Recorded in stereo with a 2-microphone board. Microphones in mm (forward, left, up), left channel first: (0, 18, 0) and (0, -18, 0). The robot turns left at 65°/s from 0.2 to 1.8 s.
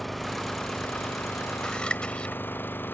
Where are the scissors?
25° left (ahead or behind); by 2.4 s 30° left (ahead or behind).